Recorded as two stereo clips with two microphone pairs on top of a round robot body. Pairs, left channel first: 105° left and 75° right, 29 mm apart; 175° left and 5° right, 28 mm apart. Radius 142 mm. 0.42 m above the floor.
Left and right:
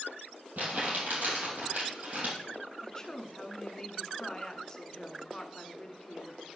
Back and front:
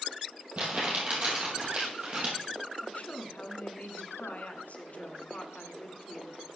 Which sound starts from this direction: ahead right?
Crumpling, at 0.6 s.